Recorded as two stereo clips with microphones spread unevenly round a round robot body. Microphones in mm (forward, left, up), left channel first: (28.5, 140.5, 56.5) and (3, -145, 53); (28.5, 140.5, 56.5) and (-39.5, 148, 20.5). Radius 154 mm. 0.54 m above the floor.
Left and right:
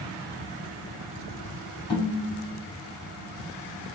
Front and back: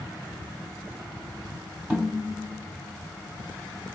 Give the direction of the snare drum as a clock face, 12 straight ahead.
9 o'clock.